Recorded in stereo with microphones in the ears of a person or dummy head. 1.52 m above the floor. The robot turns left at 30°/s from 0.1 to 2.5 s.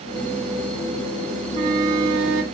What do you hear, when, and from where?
1.5 s a flute: 40° right (ahead or behind), 1.4 m; by 2.4 s 70° right (ahead or behind), 1.4 m